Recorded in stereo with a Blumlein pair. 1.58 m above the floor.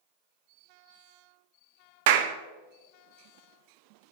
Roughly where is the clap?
Ahead right.